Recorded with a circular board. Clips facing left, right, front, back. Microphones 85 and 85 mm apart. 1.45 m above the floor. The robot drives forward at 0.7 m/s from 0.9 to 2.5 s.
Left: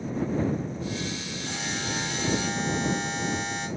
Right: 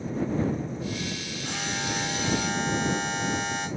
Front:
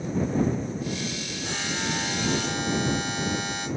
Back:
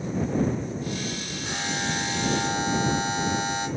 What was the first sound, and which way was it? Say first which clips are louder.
A buzzer: right 2 dB, back 1 dB; 105° right.